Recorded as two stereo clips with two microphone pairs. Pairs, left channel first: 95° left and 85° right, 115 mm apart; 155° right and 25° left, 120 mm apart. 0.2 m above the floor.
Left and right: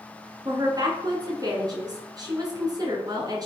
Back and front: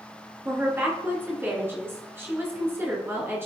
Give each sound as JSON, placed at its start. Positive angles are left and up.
{"t": 0.5, "sound": "a woman speaking", "azimuth_deg": -40, "distance_m": 2.0}